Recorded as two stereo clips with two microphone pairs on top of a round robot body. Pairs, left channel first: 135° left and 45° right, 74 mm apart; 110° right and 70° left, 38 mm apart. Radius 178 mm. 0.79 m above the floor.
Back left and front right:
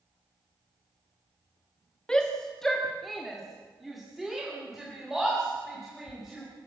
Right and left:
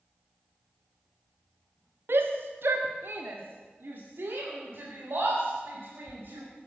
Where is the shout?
55° left, 1.6 m; by 6.4 s 35° left, 5 m.